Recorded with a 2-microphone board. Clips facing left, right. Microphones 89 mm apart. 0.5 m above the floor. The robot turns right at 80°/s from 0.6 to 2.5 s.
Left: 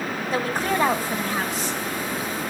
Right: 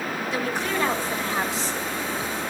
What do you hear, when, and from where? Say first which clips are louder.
0.3 s a woman speaking: left 4 dB; 135° left, 2 m; by 1.8 s 130° right, 2 m